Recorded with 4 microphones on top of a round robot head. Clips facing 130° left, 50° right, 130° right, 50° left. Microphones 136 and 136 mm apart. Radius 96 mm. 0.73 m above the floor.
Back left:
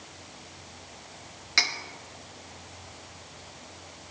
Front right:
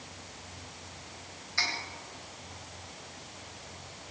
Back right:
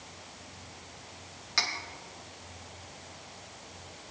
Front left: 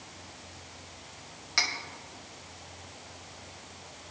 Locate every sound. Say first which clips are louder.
1.6 s cutlery clinking: back left 3 dB, even; 135° left, 1.3 m